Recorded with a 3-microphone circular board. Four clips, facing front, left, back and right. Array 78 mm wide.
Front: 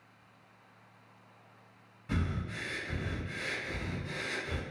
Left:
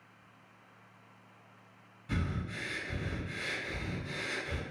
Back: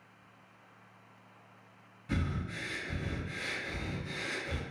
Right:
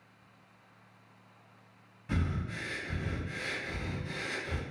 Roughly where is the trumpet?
No trumpet in this recording.